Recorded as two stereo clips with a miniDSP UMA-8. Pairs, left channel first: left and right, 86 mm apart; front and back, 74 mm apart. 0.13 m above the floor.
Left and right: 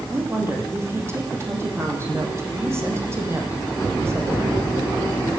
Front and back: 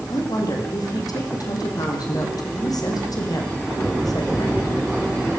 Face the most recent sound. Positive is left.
turn(degrees=-30)